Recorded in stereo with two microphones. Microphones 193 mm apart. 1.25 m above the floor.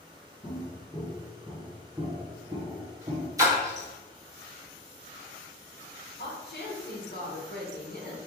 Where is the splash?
15° right (ahead or behind), 1.3 m.